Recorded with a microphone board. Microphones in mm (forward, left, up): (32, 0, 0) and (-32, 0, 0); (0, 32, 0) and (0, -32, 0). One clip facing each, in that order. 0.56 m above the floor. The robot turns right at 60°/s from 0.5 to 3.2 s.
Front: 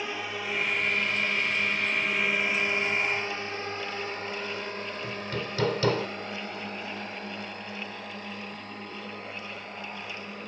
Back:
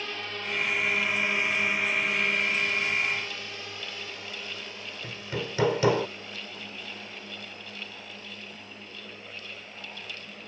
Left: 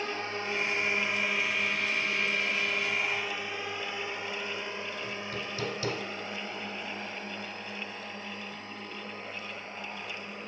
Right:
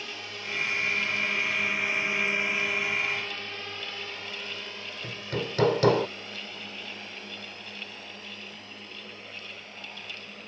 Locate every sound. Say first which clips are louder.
0.0 s a drone: front 2 dB, left 5 dB; 70° left; by 10.5 s 35° left
5.0 s hammering: back 2 dB, right 3 dB; 105° right